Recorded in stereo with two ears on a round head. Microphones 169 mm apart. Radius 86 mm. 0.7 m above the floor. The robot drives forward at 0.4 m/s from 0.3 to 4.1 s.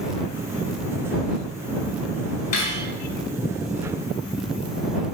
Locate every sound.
2.5 s cutlery clinking: 45° left (ahead or behind), 1.8 m; by 2.8 s 40° left (ahead or behind), 1.9 m